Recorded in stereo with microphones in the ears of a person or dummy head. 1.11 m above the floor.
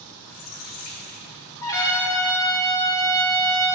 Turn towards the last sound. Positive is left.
turn(degrees=20)  # may be behind; listen again after turning